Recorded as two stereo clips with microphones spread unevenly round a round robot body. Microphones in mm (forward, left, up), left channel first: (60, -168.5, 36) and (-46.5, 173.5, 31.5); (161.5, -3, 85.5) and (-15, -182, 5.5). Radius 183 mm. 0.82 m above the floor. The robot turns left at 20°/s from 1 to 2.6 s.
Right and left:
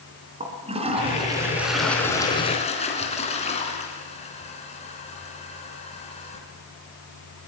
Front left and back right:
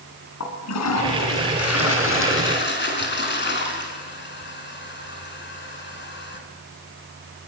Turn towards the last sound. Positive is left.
turn(degrees=0)